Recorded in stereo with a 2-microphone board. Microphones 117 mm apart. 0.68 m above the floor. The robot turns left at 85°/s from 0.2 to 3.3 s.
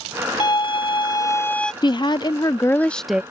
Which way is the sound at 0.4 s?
120° left.